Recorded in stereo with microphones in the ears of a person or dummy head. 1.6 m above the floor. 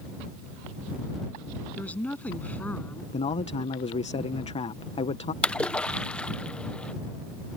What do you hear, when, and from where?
1.8 s a woman speaking: 10° left (ahead or behind)
3.1 s a man speaking: 35° left (ahead or behind)
5.4 s a splash: 5° left (ahead or behind)